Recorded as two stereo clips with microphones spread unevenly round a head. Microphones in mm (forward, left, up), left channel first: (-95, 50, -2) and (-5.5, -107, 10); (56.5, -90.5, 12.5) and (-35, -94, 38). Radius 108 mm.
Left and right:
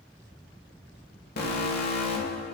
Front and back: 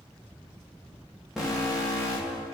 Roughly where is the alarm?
Left.